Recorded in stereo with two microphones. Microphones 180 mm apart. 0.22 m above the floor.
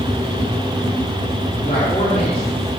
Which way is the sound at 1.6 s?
40° left (ahead or behind).